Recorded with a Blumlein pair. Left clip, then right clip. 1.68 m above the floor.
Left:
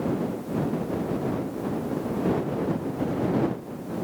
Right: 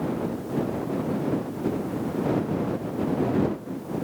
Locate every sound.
Only background noise.